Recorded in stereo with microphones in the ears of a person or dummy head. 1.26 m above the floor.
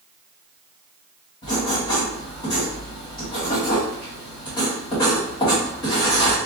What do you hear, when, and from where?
1.4 s writing: 20° left (ahead or behind), 1.7 m